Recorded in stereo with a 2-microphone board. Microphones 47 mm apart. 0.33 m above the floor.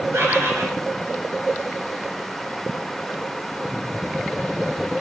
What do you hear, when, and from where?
0.1 s a bird: 55° right (ahead or behind), 3 m